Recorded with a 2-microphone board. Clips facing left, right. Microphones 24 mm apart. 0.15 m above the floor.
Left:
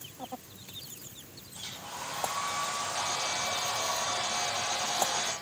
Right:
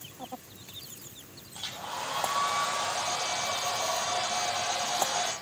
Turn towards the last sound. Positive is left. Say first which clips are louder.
# right 4 dB
turn(degrees=-65)  # may be behind; listen again after turning